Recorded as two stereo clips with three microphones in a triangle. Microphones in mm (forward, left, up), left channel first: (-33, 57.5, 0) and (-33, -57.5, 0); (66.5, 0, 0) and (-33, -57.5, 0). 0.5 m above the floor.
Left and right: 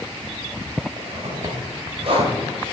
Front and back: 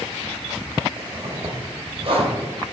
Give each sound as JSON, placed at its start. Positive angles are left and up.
{"t": 1.0, "sound": "a zipper", "azimuth_deg": -120, "distance_m": 3.0}